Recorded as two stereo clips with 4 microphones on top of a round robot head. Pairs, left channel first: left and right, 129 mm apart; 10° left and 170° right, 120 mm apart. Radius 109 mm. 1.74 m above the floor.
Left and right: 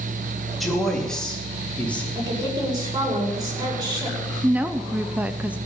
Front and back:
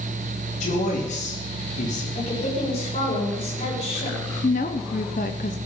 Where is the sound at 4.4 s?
10° right, 0.7 m.